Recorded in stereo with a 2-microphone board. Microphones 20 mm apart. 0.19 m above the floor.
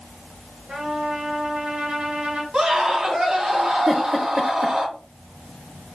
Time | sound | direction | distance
0.7 | a trumpet | 75° right (ahead or behind) | 3.5 m
2.5 | a scream | 40° right (ahead or behind) | 3.5 m
3.9 | a giggle | 60° right (ahead or behind) | 2.5 m